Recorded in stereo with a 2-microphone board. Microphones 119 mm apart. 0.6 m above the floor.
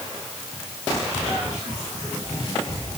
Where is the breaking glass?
I don't hear breaking glass.